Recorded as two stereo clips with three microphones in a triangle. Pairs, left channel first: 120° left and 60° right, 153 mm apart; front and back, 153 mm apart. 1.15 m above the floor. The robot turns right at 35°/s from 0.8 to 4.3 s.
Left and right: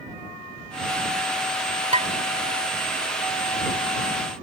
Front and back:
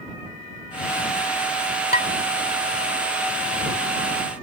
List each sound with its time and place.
1.9 s dishes clattering: 20° right; by 2.1 s 15° right